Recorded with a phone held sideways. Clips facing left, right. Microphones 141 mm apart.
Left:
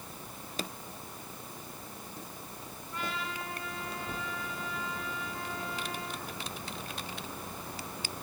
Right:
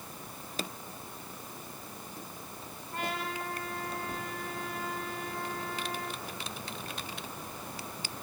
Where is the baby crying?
No baby crying in this recording.